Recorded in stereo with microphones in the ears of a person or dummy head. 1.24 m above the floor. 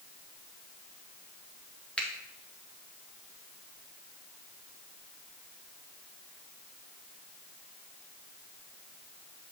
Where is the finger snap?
Centre (ahead or behind), 1.1 m.